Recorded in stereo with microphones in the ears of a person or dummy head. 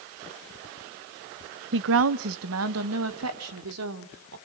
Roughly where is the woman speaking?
Right.